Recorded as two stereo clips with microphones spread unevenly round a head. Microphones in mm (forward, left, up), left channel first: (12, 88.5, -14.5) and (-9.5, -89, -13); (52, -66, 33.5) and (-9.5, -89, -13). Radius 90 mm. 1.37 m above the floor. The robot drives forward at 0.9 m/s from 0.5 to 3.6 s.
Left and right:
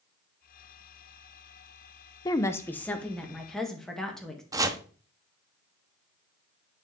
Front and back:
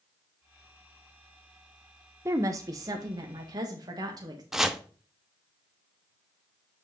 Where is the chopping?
35° right, 0.9 m.